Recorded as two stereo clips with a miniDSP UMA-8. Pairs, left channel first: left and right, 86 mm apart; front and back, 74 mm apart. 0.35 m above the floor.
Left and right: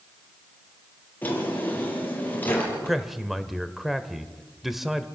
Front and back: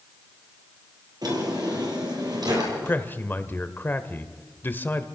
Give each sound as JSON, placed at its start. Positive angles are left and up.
{"t": 1.2, "sound": "a drawer", "azimuth_deg": 160, "distance_m": 5.5}
{"t": 2.8, "sound": "a man speaking", "azimuth_deg": -5, "distance_m": 1.2}